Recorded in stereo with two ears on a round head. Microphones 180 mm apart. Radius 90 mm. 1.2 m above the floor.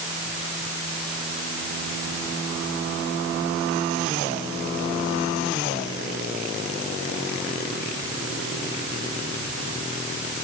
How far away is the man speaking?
I don't hear a man speaking.